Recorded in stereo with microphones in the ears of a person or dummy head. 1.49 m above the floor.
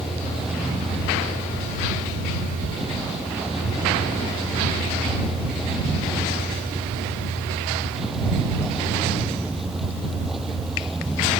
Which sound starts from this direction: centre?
A vehicle, at 0.0 s.